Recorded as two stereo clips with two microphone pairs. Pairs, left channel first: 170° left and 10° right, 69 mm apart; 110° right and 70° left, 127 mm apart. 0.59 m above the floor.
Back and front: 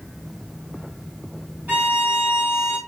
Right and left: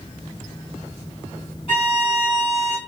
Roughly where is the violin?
Right.